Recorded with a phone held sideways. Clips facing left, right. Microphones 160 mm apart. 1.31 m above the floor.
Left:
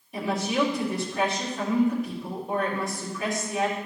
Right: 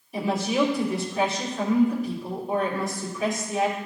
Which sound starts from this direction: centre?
A woman speaking, at 0.1 s.